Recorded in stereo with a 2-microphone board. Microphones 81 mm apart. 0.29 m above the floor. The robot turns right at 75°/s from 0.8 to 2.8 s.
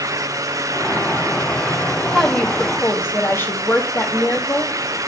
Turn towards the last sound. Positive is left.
turn(degrees=50)